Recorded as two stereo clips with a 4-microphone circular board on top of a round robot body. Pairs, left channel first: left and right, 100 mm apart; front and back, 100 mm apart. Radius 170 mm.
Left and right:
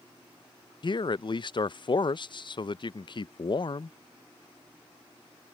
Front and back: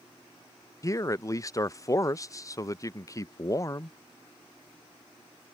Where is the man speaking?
55° left.